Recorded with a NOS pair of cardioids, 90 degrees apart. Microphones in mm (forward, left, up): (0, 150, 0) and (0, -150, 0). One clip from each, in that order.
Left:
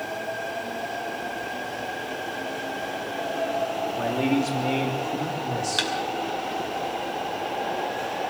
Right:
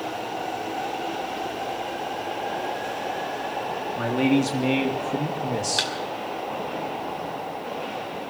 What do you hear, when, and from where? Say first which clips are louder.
4.0 s a man speaking: right 3 dB; 30° right, 3.5 m; by 5.9 s 35° right, 2 m
5.8 s a thud: left 1 dB; straight ahead, 5 m